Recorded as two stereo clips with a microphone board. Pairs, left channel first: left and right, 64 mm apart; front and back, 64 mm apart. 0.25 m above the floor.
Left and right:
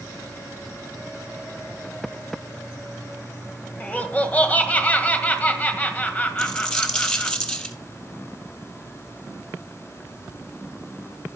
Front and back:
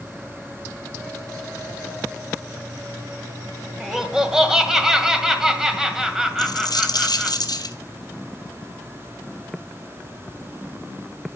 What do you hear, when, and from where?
3.8 s laughter: 110° left, 1.6 m
6.4 s a dropped coin: 15° left, 1.1 m